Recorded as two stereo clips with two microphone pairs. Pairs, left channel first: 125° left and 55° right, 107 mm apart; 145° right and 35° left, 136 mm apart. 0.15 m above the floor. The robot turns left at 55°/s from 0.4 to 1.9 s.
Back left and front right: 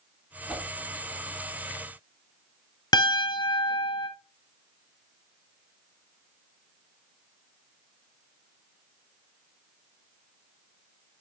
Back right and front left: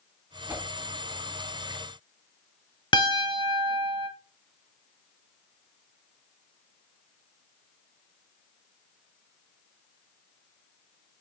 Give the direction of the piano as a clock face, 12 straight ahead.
6 o'clock.